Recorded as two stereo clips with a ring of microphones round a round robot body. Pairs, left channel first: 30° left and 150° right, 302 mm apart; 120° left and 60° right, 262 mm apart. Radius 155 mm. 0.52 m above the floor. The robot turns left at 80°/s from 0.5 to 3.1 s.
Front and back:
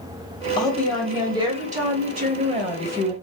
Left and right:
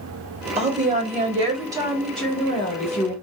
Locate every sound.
0.6 s a woman speaking: 30° right, 1.1 m; by 3.1 s 130° left, 1.1 m